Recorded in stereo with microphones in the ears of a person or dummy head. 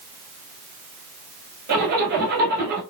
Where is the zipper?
55° right (ahead or behind), 2.5 m.